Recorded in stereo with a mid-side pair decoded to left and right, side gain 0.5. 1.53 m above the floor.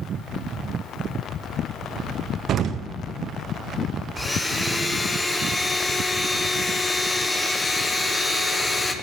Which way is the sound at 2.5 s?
60° right.